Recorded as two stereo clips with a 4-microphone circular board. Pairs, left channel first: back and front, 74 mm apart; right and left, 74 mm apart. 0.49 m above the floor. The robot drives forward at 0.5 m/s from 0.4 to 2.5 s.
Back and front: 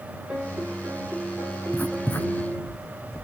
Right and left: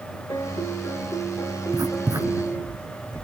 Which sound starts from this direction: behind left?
Writing, at 1.7 s.